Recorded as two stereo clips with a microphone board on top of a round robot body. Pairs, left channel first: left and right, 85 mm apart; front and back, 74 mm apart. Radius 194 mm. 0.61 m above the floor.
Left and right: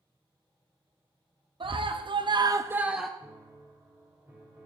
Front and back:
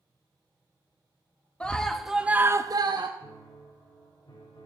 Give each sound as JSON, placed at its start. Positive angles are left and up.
{"t": 1.6, "sound": "a scream", "azimuth_deg": -75, "distance_m": 1.9}
{"t": 3.2, "sound": "a piano", "azimuth_deg": -25, "distance_m": 4.5}